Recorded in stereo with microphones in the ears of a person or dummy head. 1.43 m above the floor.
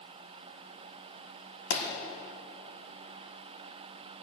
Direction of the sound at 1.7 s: 60° left (ahead or behind).